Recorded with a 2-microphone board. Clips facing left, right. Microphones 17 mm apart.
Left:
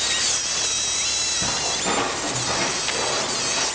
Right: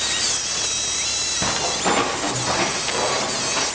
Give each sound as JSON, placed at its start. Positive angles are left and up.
{"t": 1.4, "sound": "footsteps", "side_deg": -50, "distance_m": 1.9}